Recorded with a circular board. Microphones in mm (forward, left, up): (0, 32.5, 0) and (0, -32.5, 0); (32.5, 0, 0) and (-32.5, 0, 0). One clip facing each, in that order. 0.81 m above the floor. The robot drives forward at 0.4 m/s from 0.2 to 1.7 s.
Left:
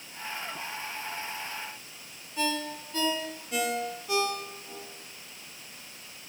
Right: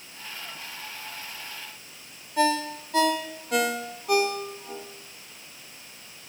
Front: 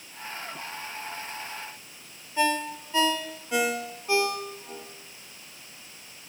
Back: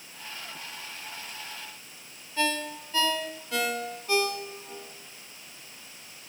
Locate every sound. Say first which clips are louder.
2.4 s a ringtone: right 7 dB, front 4 dB; 70° right, 0.9 m